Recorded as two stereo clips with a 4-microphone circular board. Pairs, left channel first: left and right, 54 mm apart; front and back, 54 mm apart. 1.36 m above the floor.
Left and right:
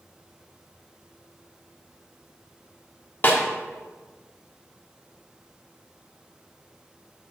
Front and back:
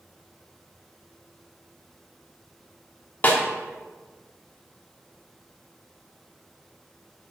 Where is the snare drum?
50° left, 1.3 m.